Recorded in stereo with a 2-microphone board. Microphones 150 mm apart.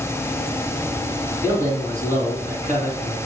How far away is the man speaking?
About 2.5 m.